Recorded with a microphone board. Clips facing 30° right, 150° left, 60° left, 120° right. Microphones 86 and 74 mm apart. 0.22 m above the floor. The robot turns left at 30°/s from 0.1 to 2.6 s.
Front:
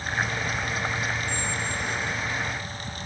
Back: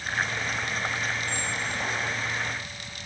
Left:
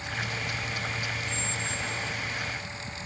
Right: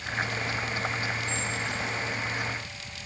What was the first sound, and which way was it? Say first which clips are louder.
A squeak: front 1 dB, right 2 dB; 175° right.